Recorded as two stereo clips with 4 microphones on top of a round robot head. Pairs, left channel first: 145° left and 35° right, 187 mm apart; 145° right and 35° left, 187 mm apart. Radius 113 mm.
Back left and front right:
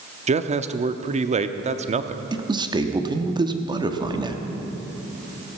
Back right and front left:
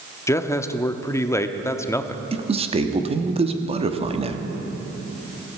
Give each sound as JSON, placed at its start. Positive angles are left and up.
{"t": 0.3, "sound": "a man speaking", "azimuth_deg": -75, "distance_m": 0.9}
{"t": 2.3, "sound": "a man speaking", "azimuth_deg": 10, "distance_m": 1.2}